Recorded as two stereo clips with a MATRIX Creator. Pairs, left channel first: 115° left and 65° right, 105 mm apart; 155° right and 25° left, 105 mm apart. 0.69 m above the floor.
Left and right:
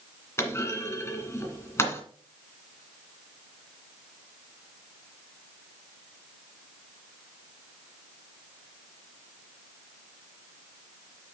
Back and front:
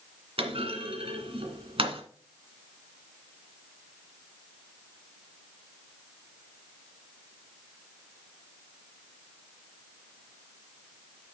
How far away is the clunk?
About 1.8 m.